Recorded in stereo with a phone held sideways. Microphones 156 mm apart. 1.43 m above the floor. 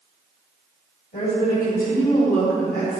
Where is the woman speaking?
70° left (ahead or behind), 3.5 m; by 3.0 s 75° left (ahead or behind), 4 m.